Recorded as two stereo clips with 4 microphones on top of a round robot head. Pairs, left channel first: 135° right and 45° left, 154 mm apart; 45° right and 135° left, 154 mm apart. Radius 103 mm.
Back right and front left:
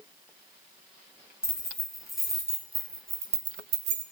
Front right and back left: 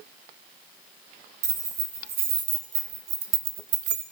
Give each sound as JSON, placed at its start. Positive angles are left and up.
{"t": 1.4, "sound": "keys jangling", "azimuth_deg": 140, "distance_m": 1.9}